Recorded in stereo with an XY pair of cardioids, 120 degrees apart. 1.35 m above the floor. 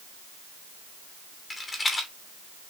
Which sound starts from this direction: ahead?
A rattle, at 1.5 s.